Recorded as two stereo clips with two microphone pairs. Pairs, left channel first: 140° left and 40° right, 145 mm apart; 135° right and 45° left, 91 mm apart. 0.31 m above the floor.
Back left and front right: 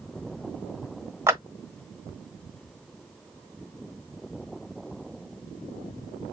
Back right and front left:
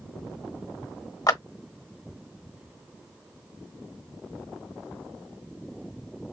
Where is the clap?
105° right, 1.2 m.